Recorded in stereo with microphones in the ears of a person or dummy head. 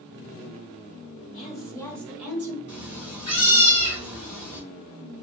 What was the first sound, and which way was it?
A woman speaking, 45° left (ahead or behind).